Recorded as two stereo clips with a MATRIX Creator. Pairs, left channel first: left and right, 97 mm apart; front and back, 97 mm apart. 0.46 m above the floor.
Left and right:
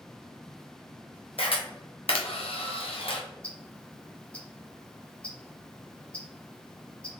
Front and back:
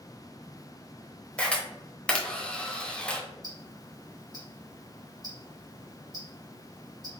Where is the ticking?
165° left, 1.4 m.